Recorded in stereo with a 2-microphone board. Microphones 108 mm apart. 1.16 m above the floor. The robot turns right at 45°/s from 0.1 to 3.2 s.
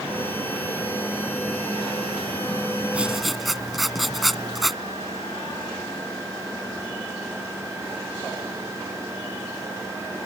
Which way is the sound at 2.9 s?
15° right (ahead or behind).